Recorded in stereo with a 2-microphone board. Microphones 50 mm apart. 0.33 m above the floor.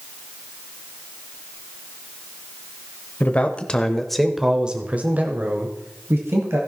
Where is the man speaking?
30° left (ahead or behind), 1.2 m; by 6.6 s 55° right (ahead or behind), 1.8 m.